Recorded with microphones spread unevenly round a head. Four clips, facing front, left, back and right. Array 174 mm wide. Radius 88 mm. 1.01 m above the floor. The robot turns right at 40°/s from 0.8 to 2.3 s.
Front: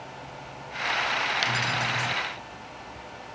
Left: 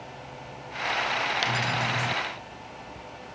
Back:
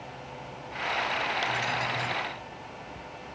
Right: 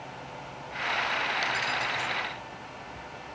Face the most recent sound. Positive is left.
turn(degrees=100)